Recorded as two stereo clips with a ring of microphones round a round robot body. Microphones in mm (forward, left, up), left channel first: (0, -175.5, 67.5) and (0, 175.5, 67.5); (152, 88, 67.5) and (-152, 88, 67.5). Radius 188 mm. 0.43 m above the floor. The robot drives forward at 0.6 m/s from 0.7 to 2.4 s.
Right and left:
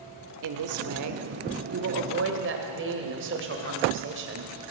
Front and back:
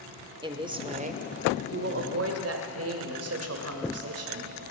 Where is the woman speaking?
105° left, 1.3 m; by 4.5 s 145° left, 1.8 m.